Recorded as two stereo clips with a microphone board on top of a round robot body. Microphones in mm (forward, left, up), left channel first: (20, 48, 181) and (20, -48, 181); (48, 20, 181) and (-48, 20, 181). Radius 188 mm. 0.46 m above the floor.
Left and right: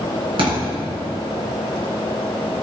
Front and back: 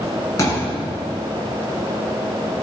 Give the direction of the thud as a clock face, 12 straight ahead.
2 o'clock.